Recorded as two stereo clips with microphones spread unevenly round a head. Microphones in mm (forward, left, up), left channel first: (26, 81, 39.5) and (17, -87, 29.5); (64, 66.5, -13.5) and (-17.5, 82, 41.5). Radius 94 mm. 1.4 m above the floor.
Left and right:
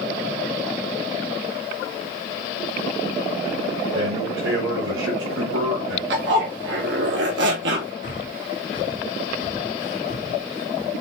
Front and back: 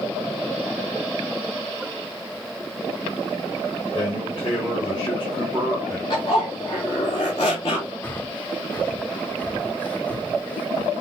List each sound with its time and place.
3.9 s a man speaking: 90° right, 4.5 m
6.1 s a zipper: 80° right, 3 m
8.0 s breathing: 95° left, 1.6 m